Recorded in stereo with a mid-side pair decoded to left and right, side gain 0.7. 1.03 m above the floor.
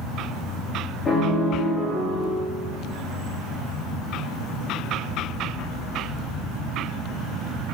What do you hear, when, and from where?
1.1 s a piano: 25° left, 2.5 m